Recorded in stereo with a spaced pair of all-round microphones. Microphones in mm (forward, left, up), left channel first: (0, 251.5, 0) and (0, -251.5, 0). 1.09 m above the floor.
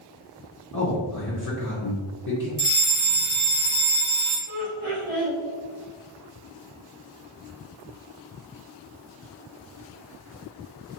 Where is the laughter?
75° right (ahead or behind), 1.7 m.